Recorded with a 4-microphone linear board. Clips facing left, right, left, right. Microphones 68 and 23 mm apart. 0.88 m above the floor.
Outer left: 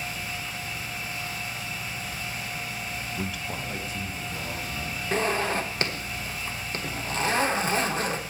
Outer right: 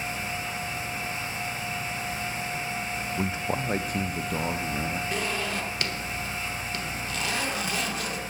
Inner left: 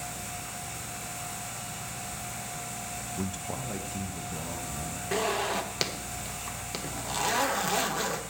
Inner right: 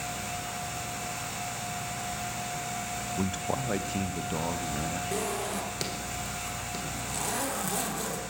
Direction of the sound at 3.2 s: 15° right (ahead or behind).